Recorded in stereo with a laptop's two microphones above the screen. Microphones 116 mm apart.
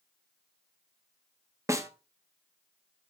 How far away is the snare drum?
About 0.7 m.